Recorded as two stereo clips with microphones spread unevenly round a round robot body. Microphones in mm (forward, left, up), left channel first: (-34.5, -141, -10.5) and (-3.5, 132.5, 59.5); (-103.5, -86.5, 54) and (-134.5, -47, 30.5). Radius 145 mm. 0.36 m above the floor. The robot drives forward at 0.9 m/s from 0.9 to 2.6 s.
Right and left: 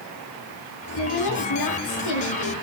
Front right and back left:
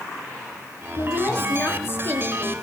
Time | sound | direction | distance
1.0 | a woman speaking | 95° right | 8.5 m